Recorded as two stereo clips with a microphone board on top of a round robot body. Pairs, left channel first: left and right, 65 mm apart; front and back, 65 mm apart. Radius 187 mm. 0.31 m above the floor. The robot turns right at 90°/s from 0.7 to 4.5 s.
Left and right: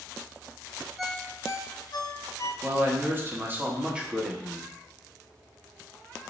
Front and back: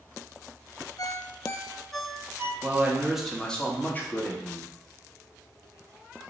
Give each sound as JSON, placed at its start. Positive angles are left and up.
{"t": 1.0, "sound": "a ringtone", "azimuth_deg": -5, "distance_m": 0.7}
{"t": 2.6, "sound": "a man speaking", "azimuth_deg": -150, "distance_m": 1.1}